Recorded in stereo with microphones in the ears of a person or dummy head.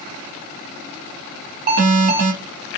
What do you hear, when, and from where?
1.7 s an alarm: 50° right (ahead or behind), 4.5 m